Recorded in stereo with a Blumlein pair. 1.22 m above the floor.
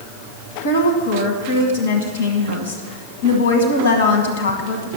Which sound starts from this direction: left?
A woman speaking, at 0.6 s.